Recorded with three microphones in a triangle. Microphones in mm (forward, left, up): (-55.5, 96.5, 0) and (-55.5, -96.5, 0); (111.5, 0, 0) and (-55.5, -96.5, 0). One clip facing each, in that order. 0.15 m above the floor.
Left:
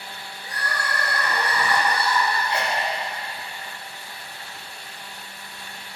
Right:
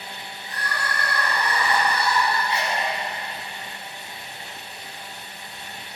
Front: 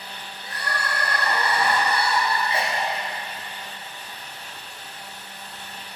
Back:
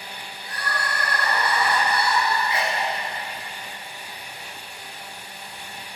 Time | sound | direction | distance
0.4 | crying | 95° left | 3 m
2.5 | a sneeze | 85° left | 1.8 m